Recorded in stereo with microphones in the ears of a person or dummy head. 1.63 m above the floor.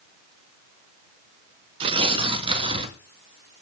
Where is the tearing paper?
30° right (ahead or behind), 1.7 m.